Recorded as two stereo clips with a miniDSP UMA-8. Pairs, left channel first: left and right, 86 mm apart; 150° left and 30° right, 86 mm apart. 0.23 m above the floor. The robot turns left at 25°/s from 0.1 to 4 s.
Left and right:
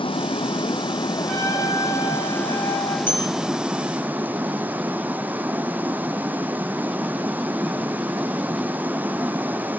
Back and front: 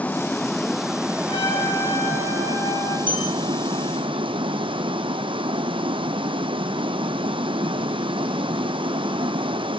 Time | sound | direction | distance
0.0 | running water | 75° left | 1.1 m
1.3 | a trumpet | 165° left | 8 m
3.1 | a bell | 155° left | 6 m